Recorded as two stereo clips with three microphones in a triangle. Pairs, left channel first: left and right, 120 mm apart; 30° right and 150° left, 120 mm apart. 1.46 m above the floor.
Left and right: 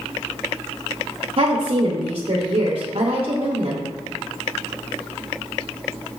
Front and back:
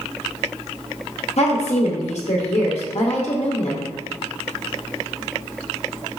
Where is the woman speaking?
55° right, 0.6 m.